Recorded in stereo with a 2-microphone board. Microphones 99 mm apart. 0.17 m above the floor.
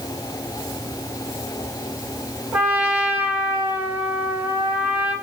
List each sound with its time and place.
2.5 s a trumpet: 15° right (ahead or behind), 1.4 m